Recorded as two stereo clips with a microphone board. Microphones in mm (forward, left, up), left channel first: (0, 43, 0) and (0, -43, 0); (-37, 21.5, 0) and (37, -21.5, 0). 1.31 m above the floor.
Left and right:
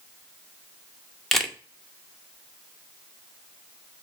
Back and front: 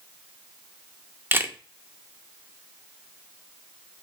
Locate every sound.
1.3 s a camera shutter: straight ahead, 0.7 m